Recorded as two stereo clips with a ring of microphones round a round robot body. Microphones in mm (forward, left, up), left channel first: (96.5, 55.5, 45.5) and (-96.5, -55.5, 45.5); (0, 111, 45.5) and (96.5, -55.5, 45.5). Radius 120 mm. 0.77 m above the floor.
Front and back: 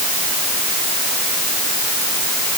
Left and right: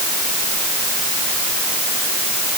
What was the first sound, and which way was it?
Only background noise.